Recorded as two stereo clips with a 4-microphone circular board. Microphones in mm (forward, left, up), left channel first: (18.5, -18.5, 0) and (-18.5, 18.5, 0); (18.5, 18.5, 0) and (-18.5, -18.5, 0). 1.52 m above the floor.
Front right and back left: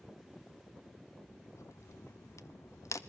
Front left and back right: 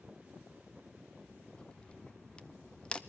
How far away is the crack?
About 0.8 m.